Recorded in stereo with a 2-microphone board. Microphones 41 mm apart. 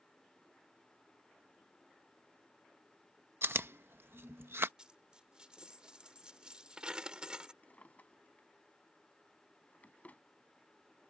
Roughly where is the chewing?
Right.